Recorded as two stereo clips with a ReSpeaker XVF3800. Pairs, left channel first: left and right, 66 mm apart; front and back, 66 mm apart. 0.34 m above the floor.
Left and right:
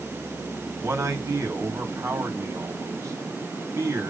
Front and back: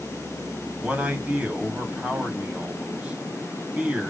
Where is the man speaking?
115° right, 2.5 m.